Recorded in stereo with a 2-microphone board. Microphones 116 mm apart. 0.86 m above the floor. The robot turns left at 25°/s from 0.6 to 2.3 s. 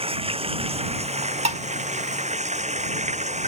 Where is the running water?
55° right; by 3.5 s 100° right.